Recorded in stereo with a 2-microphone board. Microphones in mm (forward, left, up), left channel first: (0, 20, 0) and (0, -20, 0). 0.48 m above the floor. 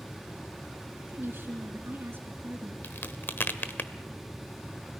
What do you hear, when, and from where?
1.1 s a woman speaking: 65° right (ahead or behind), 4.5 m
2.8 s a crack: 60° left (ahead or behind), 1.1 m